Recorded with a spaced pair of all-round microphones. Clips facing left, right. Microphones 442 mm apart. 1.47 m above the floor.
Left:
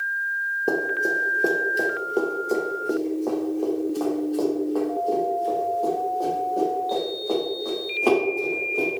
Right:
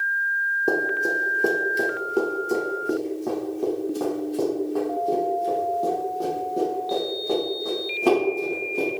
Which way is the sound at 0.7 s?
Centre (ahead or behind).